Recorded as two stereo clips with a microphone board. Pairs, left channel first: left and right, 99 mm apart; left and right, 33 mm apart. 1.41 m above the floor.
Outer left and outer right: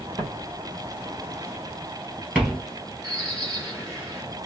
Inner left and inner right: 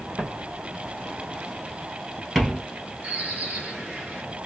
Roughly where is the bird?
Right.